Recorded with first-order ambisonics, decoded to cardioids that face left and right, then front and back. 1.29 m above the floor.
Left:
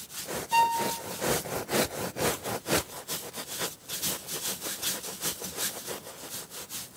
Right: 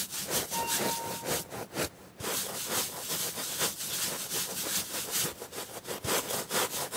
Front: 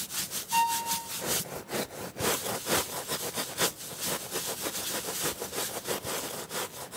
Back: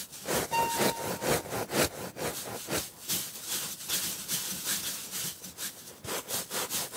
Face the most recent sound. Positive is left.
turn(degrees=80)